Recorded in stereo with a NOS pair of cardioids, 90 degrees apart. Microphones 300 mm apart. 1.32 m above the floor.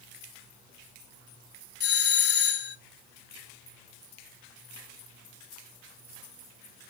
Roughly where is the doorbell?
Ahead left.